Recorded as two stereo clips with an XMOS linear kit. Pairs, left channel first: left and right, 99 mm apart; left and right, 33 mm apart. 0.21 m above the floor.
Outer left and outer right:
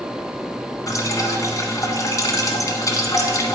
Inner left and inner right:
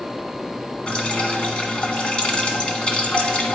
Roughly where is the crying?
I don't hear crying.